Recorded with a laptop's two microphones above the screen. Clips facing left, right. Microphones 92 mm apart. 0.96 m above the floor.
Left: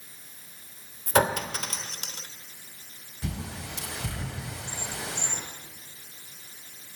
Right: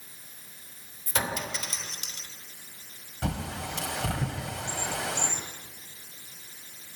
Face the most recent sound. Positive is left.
turn(degrees=-80)